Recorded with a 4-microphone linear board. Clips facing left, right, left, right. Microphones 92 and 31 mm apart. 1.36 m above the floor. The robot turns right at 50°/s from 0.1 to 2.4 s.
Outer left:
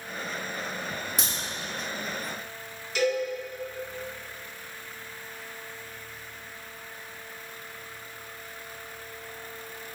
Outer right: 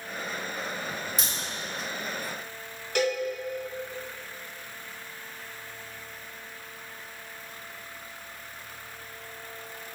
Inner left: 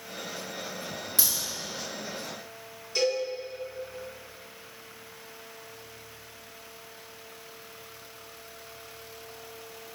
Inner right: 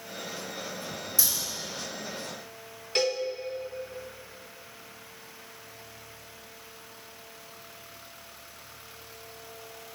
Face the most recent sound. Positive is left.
turn(degrees=-55)  # may be behind; listen again after turning